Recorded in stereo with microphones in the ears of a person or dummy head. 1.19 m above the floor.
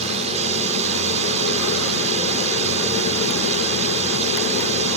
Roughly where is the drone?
Right.